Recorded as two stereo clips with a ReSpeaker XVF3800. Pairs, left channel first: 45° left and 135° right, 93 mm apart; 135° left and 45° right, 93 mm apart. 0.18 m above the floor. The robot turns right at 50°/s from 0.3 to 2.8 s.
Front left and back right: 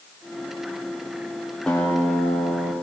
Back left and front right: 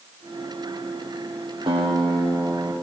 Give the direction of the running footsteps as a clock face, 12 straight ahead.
I don't hear running footsteps.